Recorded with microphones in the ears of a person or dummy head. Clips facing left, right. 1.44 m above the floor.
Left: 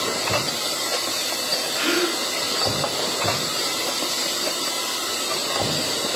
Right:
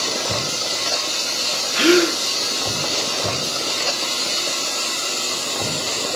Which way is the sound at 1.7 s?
70° right (ahead or behind).